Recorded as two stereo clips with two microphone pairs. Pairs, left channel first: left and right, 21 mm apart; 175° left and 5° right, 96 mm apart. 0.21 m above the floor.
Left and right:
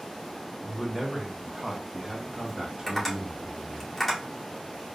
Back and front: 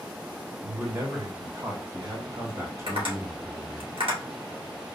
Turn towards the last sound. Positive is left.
turn(degrees=0)